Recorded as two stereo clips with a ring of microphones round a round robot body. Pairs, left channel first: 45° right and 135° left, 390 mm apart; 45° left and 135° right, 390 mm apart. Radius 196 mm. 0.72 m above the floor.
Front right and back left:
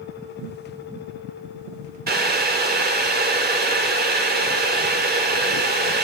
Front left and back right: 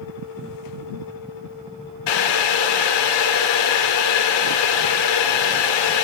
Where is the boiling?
70° left, 2.5 m.